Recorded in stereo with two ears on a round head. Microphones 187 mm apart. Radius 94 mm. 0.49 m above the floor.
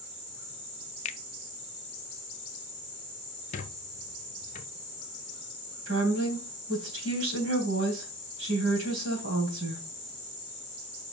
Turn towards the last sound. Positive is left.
turn(degrees=-65)  # may be behind; listen again after turning